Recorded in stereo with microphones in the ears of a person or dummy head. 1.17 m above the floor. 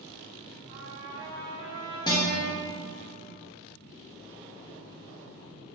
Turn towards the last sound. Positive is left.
turn(degrees=20)  # may be behind; listen again after turning